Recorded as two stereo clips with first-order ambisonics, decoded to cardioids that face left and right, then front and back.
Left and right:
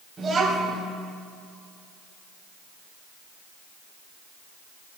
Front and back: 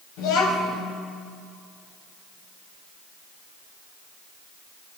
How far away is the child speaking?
About 4 m.